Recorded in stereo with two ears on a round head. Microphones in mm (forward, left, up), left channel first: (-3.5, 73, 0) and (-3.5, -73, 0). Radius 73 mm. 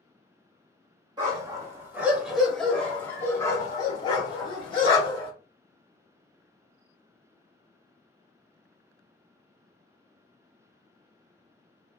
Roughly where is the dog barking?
Right.